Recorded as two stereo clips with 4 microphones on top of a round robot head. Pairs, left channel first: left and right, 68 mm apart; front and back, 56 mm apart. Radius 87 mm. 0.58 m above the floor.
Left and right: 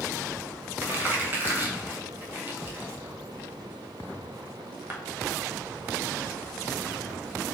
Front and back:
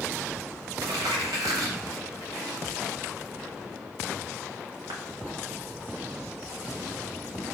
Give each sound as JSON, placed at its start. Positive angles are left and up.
{"t": 0.8, "sound": "crumpling", "azimuth_deg": -150, "distance_m": 0.8}